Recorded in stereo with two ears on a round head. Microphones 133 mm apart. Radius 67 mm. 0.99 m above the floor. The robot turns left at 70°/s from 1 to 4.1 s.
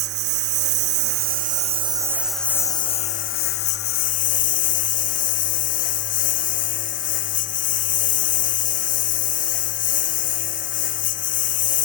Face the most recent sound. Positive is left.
turn(degrees=55)